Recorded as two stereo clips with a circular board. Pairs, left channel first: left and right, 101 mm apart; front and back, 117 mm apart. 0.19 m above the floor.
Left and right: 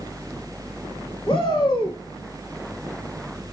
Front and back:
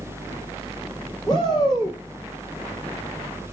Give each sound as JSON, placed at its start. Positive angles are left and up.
{"t": 1.3, "sound": "a shout", "azimuth_deg": 50, "distance_m": 9.5}